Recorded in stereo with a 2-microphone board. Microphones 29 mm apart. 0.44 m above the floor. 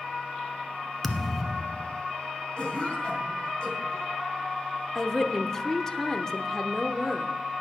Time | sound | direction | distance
1.0 | a thud | 5° left (ahead or behind) | 0.7 m
2.6 | a cough | 35° left (ahead or behind) | 3.5 m
5.0 | a woman speaking | 20° left (ahead or behind) | 0.8 m